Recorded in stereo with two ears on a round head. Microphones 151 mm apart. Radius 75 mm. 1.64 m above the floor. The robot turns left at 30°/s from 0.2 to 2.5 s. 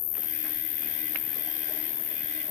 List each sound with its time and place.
0.0 s an insect: 90° left; by 2.5 s 20° left